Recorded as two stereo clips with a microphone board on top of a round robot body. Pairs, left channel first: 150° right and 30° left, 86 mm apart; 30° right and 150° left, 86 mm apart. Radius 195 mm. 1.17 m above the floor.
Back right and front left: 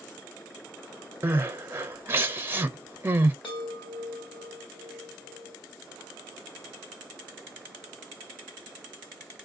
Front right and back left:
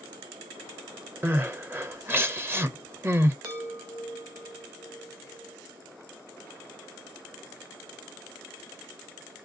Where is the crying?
90° left, 1.0 m.